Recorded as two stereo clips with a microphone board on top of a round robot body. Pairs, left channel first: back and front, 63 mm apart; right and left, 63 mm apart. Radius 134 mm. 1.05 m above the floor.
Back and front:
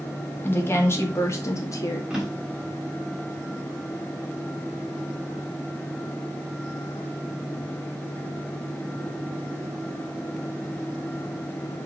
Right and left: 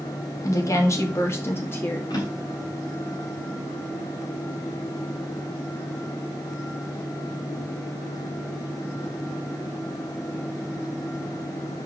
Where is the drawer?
80° right, 3.5 m.